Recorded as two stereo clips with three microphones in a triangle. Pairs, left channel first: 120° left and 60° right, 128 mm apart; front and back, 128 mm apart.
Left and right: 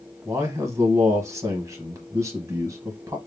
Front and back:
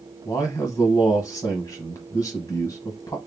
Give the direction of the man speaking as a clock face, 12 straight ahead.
1 o'clock.